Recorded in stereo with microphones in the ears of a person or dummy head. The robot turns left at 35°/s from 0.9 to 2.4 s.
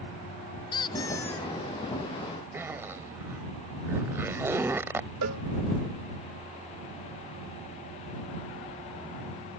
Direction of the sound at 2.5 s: 15° right (ahead or behind).